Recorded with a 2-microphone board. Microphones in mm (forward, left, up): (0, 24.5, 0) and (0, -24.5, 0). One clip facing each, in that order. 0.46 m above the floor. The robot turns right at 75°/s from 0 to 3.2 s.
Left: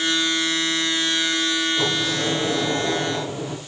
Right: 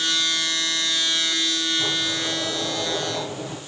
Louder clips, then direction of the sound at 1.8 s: Left 3 dB; 65° left.